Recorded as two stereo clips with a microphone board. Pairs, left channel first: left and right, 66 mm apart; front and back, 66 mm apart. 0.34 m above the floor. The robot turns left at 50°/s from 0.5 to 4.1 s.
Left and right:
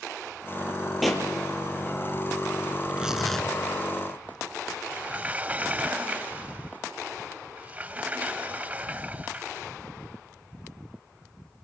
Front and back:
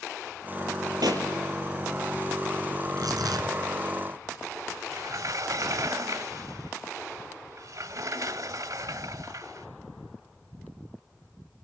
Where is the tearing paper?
160° right, 2.5 m; by 3.5 s 165° left, 2.5 m.